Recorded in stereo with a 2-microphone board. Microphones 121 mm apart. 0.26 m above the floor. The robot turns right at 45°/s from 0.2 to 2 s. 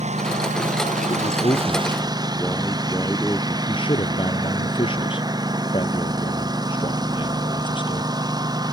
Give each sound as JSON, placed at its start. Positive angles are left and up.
{"t": 0.0, "sound": "a lawn mower", "azimuth_deg": -115}
{"t": 1.1, "sound": "a man speaking", "azimuth_deg": 120}
{"t": 3.7, "sound": "a man speaking", "side_deg": 45}